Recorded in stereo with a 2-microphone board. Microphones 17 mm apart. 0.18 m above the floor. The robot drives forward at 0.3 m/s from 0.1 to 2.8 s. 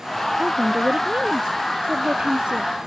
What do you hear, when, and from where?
0.4 s a woman speaking: 65° right (ahead or behind); by 2.7 s 70° right (ahead or behind)